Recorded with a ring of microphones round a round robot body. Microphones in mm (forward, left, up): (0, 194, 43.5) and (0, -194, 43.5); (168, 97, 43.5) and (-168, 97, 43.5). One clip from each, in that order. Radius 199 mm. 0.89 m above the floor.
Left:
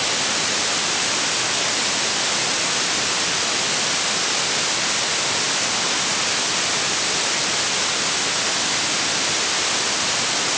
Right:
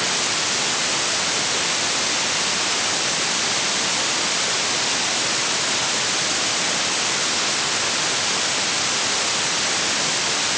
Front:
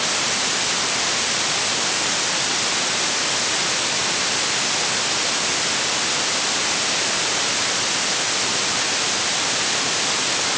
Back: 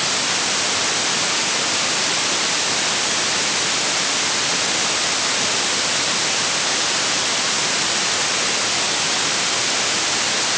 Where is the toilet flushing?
I don't hear a toilet flushing.